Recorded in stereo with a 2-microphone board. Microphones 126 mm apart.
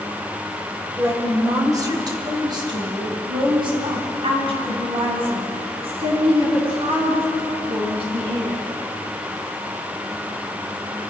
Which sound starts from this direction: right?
A woman speaking, at 1.0 s.